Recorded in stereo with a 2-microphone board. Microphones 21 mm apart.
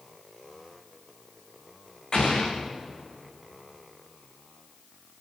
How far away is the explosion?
About 5.5 m.